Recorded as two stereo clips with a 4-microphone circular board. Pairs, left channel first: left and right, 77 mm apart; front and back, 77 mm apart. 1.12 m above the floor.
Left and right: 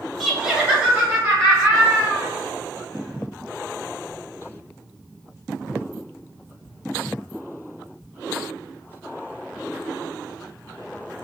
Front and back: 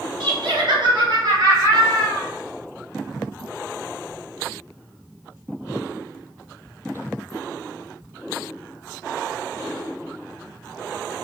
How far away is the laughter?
About 1.0 m.